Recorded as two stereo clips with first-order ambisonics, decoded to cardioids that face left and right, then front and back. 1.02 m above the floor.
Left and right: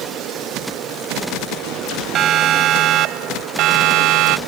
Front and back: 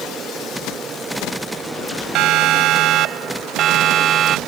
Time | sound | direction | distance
2.1 | a siren | 145° right | ?